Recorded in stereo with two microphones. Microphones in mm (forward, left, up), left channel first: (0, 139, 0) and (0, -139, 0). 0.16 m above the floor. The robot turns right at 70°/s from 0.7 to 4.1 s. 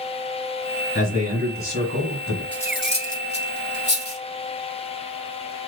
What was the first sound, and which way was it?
A man speaking, 25° left (ahead or behind).